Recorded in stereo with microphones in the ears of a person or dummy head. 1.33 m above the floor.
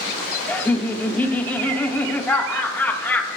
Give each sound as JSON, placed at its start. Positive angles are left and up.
{"t": 0.5, "sound": "laughter", "side_deg": 5, "distance_m": 1.5}